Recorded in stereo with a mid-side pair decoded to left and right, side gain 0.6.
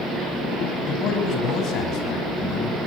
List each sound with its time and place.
0.9 s a man speaking: 55° left, 9.5 m; by 2.8 s 60° left, 10 m